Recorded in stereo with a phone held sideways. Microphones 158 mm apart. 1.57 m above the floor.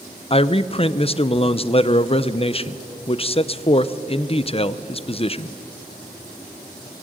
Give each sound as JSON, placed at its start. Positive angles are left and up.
{"t": 0.3, "sound": "a man speaking", "side_deg": 40, "distance_m": 0.7}